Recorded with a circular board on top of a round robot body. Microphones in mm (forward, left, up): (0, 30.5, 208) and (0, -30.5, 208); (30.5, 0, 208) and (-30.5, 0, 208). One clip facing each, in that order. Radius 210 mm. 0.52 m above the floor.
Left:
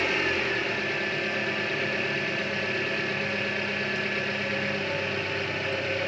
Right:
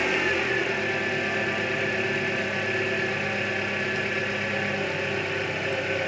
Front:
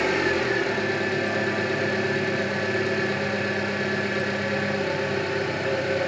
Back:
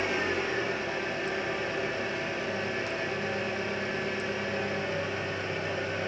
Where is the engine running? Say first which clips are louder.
Right 2 dB, front 6 dB; 15° right, 5 m.